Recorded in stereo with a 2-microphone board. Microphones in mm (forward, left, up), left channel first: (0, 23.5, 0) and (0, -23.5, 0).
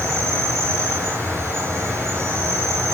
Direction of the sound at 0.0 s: 75° right (ahead or behind).